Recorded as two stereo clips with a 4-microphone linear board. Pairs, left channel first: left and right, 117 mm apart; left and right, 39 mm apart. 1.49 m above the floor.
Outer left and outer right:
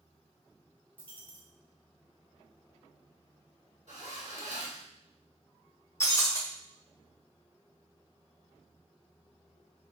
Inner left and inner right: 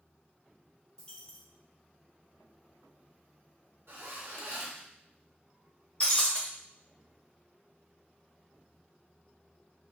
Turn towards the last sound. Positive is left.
turn(degrees=25)  # may be behind; listen again after turning